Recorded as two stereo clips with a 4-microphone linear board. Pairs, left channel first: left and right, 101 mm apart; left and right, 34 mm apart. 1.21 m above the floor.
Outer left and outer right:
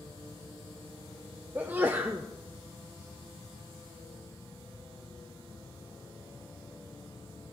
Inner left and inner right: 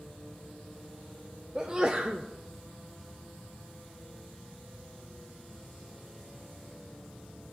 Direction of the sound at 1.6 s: 20° right (ahead or behind).